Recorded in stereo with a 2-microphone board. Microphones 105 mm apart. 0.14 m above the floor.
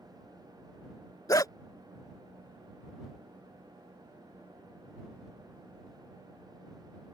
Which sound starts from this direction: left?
A dog barking, at 1.3 s.